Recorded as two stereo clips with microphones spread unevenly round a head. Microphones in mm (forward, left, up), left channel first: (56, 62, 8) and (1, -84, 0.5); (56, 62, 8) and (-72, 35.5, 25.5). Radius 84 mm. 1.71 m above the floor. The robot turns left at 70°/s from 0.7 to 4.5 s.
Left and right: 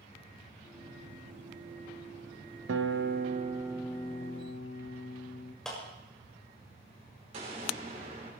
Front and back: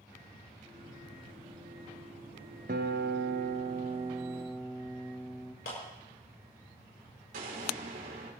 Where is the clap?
15° right, 7 m.